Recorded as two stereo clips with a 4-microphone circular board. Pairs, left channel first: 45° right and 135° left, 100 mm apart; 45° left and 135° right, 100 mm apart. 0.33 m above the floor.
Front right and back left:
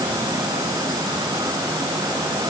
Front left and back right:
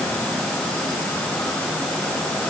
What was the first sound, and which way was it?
Only background noise.